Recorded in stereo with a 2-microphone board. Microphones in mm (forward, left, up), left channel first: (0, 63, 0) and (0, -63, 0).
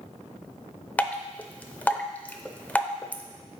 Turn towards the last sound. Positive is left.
turn(degrees=10)  # may be behind; listen again after turning